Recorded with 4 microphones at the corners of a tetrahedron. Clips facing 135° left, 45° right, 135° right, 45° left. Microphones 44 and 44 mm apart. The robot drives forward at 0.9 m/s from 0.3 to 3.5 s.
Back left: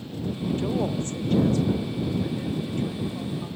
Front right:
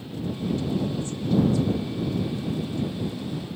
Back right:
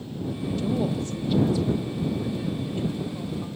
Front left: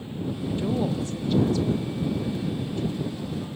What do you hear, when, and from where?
0.6 s a woman speaking: 105° left, 0.8 m; by 3.5 s 170° left, 3 m